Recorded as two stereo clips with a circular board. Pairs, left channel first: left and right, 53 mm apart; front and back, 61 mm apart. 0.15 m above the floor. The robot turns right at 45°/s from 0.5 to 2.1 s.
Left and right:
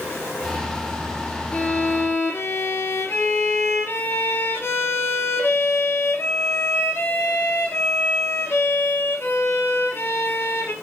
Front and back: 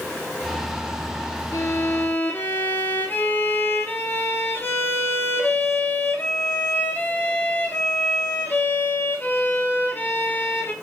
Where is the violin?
25° left, 1.7 m; by 10.7 s 50° left, 1.7 m.